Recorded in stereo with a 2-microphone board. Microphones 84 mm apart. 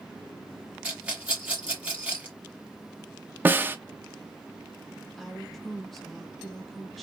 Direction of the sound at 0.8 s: 15° right (ahead or behind).